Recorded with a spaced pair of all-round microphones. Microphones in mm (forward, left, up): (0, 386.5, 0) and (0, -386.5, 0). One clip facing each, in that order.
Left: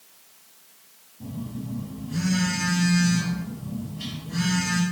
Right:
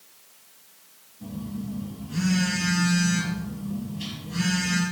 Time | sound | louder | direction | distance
1.2 | a phone buzzing | right 1 dB | 70° left (ahead or behind) | 4 m